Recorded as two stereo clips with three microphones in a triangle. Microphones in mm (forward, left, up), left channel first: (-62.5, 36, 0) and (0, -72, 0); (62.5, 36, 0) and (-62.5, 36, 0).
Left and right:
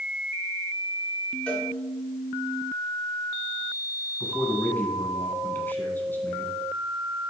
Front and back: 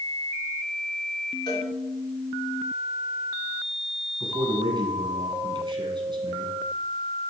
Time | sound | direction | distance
1.5 | a cowbell | 45° left | 2 m
4.2 | a man speaking | 175° right | 1.6 m